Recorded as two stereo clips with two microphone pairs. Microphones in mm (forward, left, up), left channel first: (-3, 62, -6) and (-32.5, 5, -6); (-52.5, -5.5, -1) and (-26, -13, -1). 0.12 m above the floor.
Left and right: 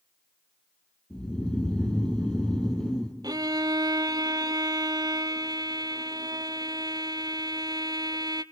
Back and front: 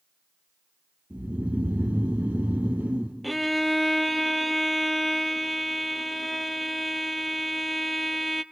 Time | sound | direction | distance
1.1 | snoring | 15° right | 3.5 m
3.2 | a violin | 115° right | 0.6 m